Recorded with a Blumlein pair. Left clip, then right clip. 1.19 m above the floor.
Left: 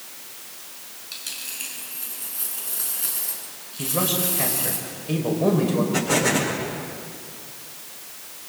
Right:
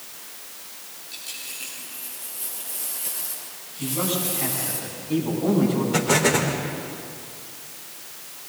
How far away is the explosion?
About 4.5 m.